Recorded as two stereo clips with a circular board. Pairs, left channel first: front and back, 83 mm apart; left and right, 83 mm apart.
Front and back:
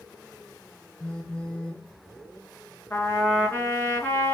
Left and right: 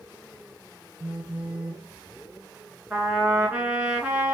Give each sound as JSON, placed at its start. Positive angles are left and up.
{"t": 1.0, "sound": "a phone buzzing", "azimuth_deg": -65, "distance_m": 1.4}
{"t": 2.9, "sound": "a trumpet", "azimuth_deg": -35, "distance_m": 1.8}